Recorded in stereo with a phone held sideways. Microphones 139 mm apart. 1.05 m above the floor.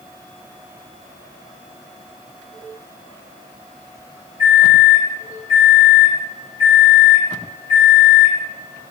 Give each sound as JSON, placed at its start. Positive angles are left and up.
{"t": 4.4, "sound": "a microwave", "side_deg": 65, "distance_m": 1.5}